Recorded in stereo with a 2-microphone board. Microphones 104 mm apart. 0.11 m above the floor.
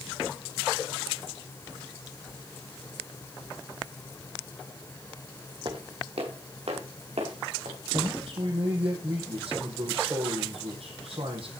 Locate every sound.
5.7 s footsteps: 50° right (ahead or behind), 3 m; by 7.8 s 85° right, 5 m
7.9 s a man speaking: 65° right (ahead or behind), 4 m